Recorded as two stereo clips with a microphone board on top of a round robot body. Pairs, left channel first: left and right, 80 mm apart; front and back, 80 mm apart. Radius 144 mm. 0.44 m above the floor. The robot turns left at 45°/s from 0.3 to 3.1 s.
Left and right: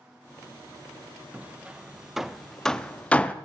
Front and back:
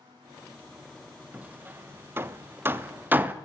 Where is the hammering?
135° right, 0.7 m; by 3.3 s 145° left, 0.7 m.